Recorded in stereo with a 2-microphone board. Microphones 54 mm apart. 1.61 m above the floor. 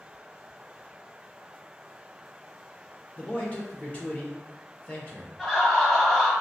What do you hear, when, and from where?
3.2 s a man speaking: 25° left (ahead or behind), 1.2 m
5.4 s laughter: 15° left (ahead or behind), 1.4 m